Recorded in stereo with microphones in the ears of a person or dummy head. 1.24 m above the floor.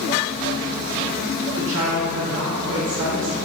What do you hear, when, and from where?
1.6 s a woman speaking: 80° right, 1.1 m